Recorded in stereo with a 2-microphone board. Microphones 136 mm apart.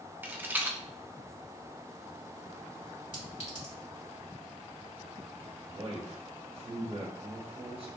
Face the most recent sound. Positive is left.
turn(degrees=-45)  # may be behind; listen again after turning